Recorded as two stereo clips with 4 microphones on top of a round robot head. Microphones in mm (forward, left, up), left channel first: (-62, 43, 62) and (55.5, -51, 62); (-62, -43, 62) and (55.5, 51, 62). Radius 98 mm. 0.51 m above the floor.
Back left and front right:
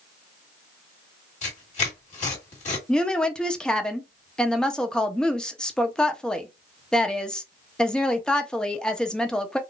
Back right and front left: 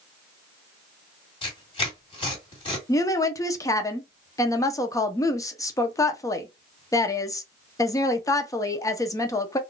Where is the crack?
No crack in this recording.